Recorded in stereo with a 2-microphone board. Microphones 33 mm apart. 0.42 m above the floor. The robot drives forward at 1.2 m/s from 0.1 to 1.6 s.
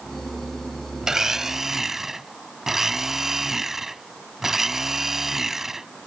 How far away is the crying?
No crying in this recording.